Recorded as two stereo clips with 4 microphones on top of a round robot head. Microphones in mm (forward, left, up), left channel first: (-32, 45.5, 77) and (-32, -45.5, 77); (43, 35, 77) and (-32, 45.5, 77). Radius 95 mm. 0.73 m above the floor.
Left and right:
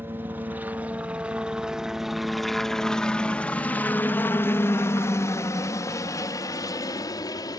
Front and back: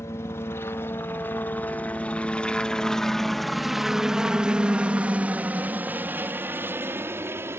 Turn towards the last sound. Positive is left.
turn(degrees=125)